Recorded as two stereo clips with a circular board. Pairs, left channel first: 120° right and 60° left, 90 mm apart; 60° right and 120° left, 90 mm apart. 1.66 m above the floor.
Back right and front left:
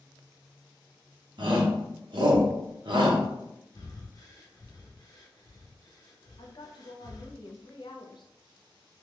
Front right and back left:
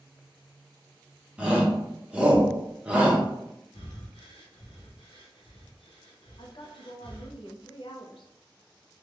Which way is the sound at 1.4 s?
40° left.